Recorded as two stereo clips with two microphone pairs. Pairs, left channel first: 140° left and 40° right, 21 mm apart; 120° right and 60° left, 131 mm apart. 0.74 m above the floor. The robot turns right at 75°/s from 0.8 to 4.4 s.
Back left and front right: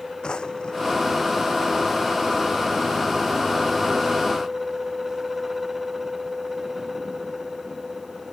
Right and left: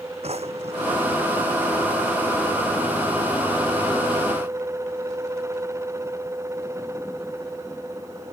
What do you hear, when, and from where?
0.2 s a drawer: 95° left; by 1.1 s 120° left